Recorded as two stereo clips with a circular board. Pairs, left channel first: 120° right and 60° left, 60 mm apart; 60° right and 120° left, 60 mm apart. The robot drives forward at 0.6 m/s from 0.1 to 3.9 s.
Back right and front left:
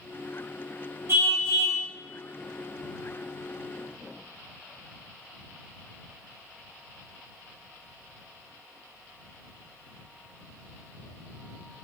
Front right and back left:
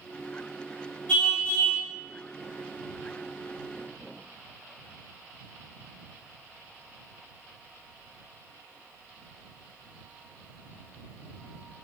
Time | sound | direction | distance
1.1 | a car horn | 15° left | 4.5 m